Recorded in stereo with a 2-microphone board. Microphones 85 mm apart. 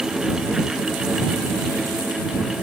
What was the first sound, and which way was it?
Only background noise.